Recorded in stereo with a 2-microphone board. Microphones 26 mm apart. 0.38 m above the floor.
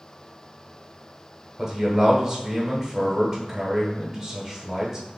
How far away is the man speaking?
About 0.9 m.